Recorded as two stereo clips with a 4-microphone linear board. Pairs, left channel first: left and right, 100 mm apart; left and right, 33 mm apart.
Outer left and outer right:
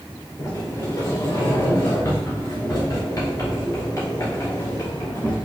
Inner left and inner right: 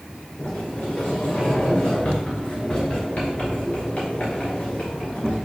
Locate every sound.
0.4 s a sliding door: 35° left (ahead or behind), 2 m